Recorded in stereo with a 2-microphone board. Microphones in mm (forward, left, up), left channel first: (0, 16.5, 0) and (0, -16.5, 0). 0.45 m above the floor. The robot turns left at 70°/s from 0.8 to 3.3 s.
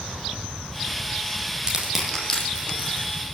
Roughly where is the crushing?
Right.